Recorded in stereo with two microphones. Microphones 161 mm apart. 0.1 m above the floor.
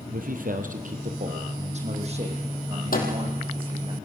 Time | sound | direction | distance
0.1 | a man speaking | 60° right (ahead or behind) | 2.5 m
2.9 | a microwave | 65° left (ahead or behind) | 4 m